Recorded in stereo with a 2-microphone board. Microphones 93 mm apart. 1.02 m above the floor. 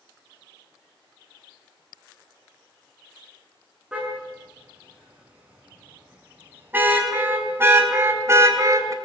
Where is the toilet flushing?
I don't hear a toilet flushing.